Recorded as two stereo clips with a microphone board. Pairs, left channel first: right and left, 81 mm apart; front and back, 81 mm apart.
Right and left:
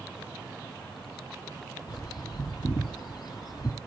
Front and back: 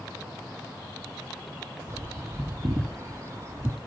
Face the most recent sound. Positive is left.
turn(degrees=-125)